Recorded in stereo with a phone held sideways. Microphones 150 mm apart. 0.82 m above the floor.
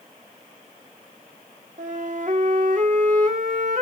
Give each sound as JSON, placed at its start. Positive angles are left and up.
{"t": 1.8, "sound": "a flute", "side_deg": -55, "distance_m": 2.5}